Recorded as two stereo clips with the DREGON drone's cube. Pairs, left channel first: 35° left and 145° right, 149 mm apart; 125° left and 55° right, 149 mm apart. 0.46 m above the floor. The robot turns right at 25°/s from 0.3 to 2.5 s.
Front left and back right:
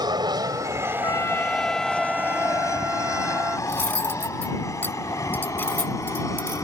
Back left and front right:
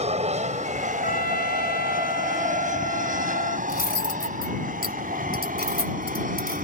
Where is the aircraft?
90° right; by 6.7 s 35° right.